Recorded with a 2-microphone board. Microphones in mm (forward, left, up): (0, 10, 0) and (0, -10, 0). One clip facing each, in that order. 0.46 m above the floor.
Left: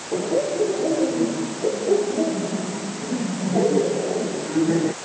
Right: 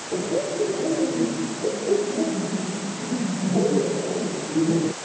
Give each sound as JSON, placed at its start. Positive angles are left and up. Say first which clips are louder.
{"t": 0.1, "sound": "laughter", "louder": "left 3 dB", "side_deg": 80}